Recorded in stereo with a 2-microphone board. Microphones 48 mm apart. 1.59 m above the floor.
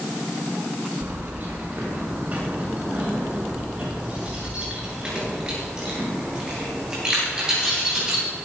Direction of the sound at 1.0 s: 45° right (ahead or behind).